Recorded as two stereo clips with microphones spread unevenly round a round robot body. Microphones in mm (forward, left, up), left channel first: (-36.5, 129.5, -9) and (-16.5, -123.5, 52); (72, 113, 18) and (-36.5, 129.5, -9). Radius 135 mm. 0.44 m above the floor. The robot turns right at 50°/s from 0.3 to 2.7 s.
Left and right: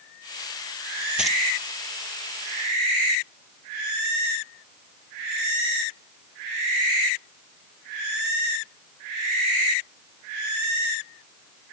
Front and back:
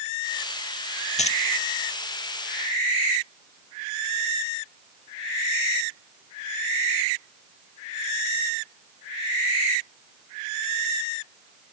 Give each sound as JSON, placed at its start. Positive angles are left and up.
{"t": 1.2, "sound": "keys jangling", "azimuth_deg": 0}